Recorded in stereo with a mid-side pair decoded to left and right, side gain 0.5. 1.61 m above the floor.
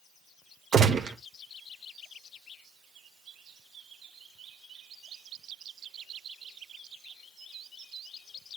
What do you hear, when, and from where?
0.7 s a gunshot: 50° right, 1.8 m